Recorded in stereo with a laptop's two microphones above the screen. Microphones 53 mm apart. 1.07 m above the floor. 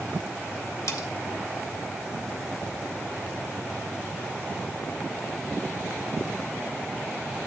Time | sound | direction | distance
0.9 | cutlery clinking | 80° left | 1.3 m